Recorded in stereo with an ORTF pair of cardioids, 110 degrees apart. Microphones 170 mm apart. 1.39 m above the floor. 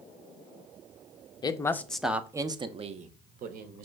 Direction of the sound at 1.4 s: 25° left.